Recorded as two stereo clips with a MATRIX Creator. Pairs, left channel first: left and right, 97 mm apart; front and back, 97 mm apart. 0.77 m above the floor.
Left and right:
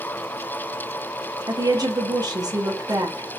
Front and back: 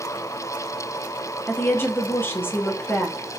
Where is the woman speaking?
60° right, 1.2 m.